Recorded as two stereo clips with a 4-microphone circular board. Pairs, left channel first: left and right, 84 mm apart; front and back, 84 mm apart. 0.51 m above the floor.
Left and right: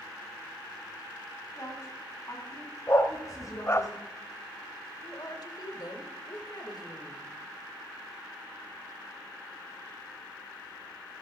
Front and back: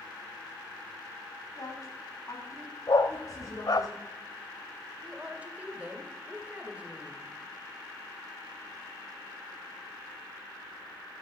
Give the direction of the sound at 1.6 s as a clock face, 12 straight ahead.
11 o'clock.